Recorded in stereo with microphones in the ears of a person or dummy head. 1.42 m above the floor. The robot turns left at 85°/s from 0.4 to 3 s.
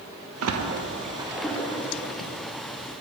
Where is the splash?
80° right, 0.6 m; by 2.3 s 70° left (ahead or behind), 0.6 m.